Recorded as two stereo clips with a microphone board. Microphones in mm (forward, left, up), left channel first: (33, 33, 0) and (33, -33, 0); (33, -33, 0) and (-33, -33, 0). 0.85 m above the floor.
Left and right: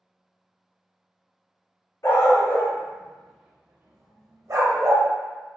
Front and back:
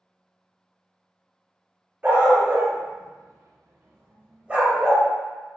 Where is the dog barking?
120° left, 1.4 m; by 5.1 s 100° right, 1.6 m.